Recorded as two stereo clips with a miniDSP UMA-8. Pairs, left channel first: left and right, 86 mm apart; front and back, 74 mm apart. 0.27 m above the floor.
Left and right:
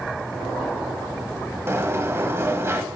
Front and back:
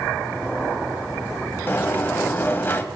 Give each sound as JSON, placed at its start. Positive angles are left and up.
{"t": 1.7, "sound": "a sliding door", "azimuth_deg": -45, "distance_m": 1.1}